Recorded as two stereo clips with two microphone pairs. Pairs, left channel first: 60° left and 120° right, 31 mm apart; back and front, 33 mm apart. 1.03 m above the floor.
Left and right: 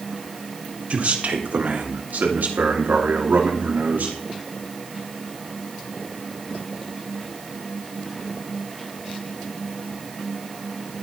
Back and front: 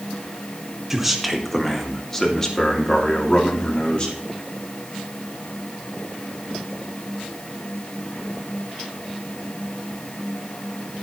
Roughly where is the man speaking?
Right.